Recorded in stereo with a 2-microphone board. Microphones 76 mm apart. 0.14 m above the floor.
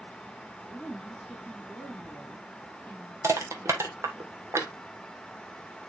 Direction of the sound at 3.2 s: 35° right (ahead or behind).